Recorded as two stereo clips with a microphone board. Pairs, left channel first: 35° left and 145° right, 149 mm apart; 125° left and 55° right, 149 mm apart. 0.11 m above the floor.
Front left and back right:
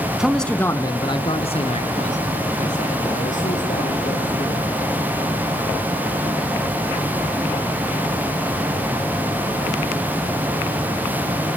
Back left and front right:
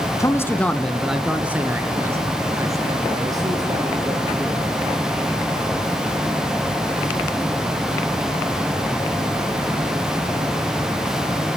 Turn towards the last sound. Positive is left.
turn(degrees=5)